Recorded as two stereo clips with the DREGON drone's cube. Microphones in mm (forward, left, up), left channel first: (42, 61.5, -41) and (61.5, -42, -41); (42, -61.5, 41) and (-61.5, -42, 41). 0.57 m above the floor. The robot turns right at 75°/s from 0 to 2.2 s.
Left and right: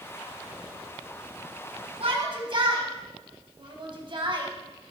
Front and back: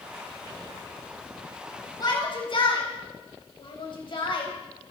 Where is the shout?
60° right, 4 m; by 4.5 s 45° right, 4 m.